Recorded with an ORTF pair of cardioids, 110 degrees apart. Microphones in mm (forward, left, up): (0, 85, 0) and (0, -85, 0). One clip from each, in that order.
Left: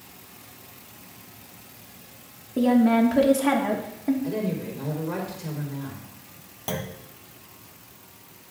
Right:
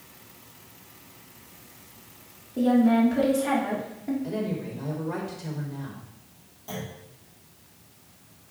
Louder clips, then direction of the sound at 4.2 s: Left 2 dB; 10° left.